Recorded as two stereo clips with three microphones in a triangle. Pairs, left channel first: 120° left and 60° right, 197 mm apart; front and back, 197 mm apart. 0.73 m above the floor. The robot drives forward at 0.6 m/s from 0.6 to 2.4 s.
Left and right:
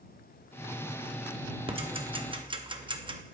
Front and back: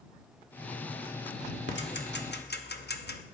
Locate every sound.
1.7 s ticking: straight ahead, 1.1 m; by 3.2 s 5° left, 0.7 m